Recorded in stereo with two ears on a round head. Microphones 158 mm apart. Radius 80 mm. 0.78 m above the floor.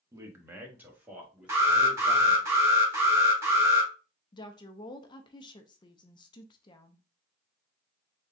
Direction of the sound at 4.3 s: 25° left (ahead or behind).